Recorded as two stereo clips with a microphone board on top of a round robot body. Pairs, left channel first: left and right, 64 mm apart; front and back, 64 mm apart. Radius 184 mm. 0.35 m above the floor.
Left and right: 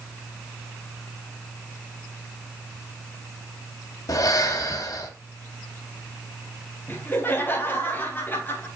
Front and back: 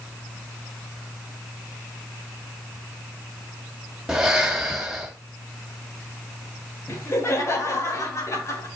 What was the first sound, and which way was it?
Breathing, 95° left.